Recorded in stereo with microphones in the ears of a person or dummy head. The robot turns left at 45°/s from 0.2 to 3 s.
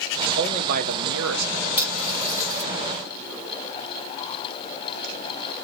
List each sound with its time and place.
0.3 s a man speaking: 30° right, 0.8 m; by 1.7 s 90° right, 0.8 m
1.8 s cutlery clinking: 10° right (ahead or behind), 1.0 m; by 2.6 s 40° right (ahead or behind), 1.0 m